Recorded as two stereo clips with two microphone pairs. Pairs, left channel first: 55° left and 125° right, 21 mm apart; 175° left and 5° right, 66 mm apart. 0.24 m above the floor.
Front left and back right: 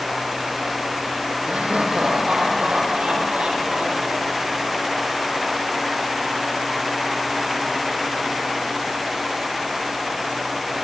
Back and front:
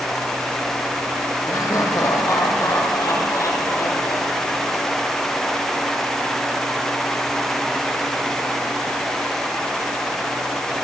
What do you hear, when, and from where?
1.5 s laughter: 150° right, 7.5 m